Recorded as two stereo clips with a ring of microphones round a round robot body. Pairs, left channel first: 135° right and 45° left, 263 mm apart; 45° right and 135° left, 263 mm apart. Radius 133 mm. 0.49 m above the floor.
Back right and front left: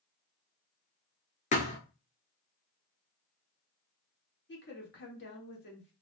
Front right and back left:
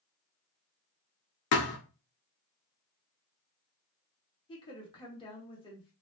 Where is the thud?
75° right, 0.8 m.